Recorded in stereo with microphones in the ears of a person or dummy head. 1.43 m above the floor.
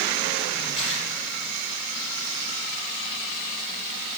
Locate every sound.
0.8 s tearing paper: 30° left (ahead or behind), 5.5 m